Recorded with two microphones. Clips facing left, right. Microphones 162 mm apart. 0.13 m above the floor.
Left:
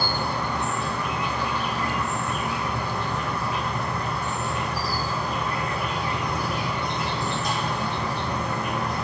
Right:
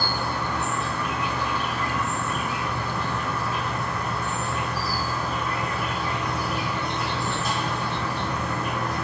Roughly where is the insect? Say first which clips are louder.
Left 1 dB; centre.